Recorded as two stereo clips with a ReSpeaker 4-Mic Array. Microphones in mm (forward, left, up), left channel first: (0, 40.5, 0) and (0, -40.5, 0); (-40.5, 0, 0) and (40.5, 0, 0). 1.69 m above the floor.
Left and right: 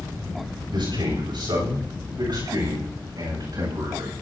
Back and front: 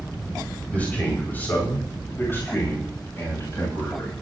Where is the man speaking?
105° right, 7 m; by 4.2 s 125° right, 9.5 m.